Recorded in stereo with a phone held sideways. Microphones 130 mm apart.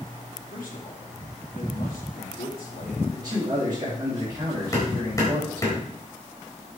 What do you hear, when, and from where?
0.5 s a man speaking: 80° left, 3 m
3.1 s a man speaking: 30° right (ahead or behind), 4 m
4.7 s hammering: 25° left (ahead or behind), 3.5 m